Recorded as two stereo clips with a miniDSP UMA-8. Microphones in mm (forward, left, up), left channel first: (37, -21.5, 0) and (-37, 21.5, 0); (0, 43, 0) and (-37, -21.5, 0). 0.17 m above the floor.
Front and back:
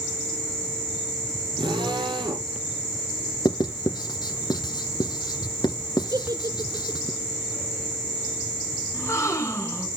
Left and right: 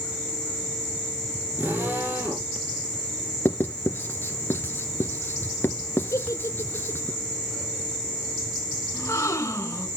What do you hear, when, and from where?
1.6 s a drill: straight behind, 6 m
3.5 s writing: straight ahead, 1.3 m
6.1 s a giggle: 110° left, 1.1 m
8.9 s a gasp: 15° left, 2.5 m